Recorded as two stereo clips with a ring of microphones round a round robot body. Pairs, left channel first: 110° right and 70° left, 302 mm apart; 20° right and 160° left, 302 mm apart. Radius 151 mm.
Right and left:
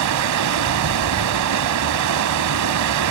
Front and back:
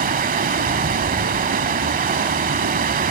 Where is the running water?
95° left, 0.9 m.